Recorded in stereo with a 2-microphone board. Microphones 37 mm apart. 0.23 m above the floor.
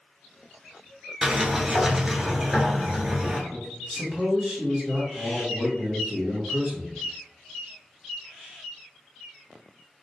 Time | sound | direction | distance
1.2 | a sliding door | 15° right (ahead or behind) | 1.0 m
3.5 | a man speaking | 35° right (ahead or behind) | 1.7 m